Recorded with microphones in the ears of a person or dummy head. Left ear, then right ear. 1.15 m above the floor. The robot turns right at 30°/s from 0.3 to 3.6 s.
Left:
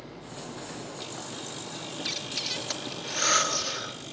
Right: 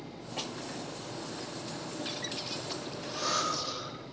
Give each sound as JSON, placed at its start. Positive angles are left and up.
{"t": 2.0, "sound": "breathing", "side_deg": 55, "distance_m": 3.5}